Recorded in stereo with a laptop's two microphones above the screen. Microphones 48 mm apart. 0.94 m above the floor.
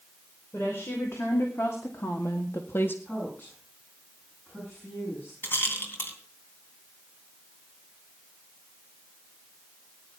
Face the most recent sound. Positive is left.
turn(degrees=45)  # may be behind; listen again after turning